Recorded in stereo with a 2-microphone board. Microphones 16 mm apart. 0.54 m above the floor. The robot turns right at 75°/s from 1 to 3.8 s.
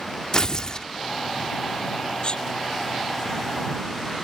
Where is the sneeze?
50° left (ahead or behind); by 2.5 s 70° left (ahead or behind).